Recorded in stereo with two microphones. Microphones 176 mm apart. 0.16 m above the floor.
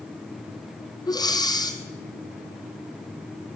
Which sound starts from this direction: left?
Breathing, at 1.1 s.